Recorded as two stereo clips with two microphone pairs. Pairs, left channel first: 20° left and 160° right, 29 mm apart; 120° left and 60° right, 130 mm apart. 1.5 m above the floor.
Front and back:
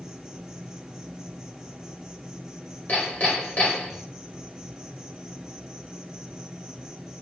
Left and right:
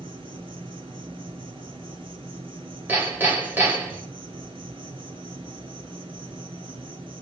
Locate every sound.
0.0 s an insect: 80° right, 2 m
2.9 s hammering: 15° left, 3 m